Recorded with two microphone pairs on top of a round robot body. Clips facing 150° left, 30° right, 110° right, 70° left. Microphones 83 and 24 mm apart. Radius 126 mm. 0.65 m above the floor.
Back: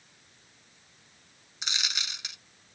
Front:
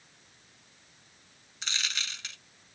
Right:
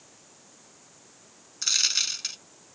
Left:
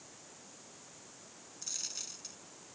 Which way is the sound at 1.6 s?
140° right.